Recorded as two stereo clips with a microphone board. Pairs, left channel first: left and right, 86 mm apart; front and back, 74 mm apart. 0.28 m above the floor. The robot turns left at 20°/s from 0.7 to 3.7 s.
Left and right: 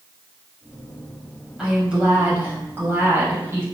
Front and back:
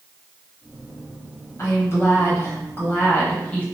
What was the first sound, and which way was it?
A woman speaking, 15° right.